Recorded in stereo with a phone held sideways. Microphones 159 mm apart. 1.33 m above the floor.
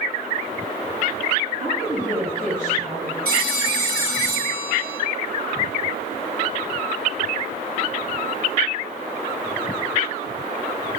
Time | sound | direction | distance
1.6 | a woman speaking | 40° right (ahead or behind) | 4 m
3.2 | a phone ringing | 75° right (ahead or behind) | 5 m